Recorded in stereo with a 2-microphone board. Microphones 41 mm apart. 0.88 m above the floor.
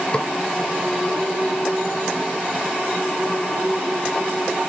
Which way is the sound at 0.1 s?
25° left (ahead or behind).